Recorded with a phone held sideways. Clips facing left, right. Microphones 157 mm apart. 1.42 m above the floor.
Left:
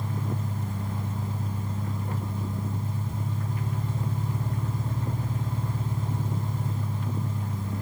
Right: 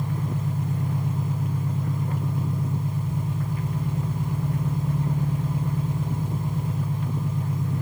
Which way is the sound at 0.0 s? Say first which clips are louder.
Right 4 dB; 15° right (ahead or behind).